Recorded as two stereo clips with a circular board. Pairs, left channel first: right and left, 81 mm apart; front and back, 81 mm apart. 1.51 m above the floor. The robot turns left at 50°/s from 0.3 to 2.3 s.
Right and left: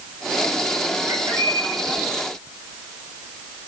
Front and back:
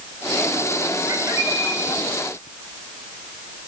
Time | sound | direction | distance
1.1 | a bird | 135° left | 7 m